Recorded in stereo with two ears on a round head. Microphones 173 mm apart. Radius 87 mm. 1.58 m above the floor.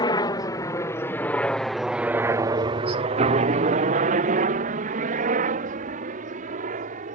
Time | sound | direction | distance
0.0 | a helicopter | 20° left (ahead or behind) | ?